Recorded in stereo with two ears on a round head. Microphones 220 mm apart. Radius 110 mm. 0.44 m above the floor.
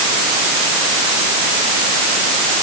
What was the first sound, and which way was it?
Only background noise.